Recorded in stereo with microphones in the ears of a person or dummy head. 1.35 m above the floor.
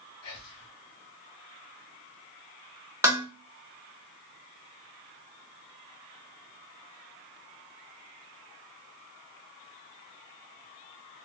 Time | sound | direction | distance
0.2 | whispering | 55° left (ahead or behind) | 1.4 m
3.0 | dishes clattering | 15° right (ahead or behind) | 0.8 m